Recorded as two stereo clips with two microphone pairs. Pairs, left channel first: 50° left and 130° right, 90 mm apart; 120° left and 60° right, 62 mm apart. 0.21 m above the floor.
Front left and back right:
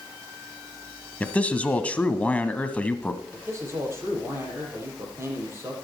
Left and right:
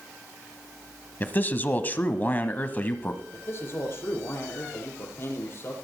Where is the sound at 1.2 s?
105° left, 1.1 m.